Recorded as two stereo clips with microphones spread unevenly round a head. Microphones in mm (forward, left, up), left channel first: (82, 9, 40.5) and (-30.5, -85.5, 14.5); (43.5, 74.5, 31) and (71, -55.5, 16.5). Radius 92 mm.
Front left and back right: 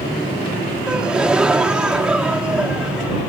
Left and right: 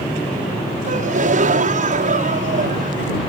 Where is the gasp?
55° right.